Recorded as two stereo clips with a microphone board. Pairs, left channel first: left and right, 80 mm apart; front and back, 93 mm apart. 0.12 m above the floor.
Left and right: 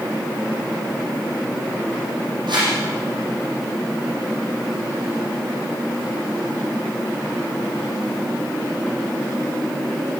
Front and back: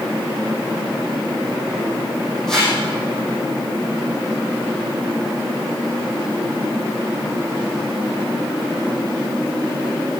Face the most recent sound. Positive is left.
turn(degrees=-85)